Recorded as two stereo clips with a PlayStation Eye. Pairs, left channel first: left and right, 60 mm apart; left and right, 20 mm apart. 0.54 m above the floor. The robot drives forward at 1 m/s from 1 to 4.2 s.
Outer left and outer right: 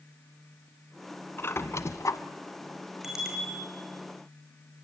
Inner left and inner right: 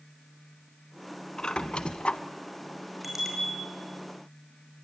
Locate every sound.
1.4 s a squeak: 40° left (ahead or behind), 1.5 m; by 2.2 s 70° left (ahead or behind), 1.0 m
3.0 s a bicycle bell: 5° right (ahead or behind), 6 m